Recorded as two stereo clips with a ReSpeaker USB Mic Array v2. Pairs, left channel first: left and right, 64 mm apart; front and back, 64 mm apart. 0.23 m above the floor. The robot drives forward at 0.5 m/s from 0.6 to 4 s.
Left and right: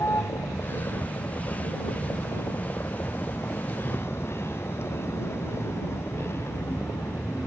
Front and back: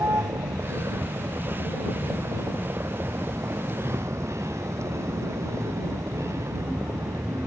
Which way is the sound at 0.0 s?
140° left.